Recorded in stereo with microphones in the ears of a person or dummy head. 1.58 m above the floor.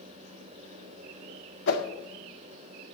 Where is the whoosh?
60° left (ahead or behind), 1.8 m.